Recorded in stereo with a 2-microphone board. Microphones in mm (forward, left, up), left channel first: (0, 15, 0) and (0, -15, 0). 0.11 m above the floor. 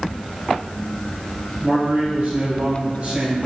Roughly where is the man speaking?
Right.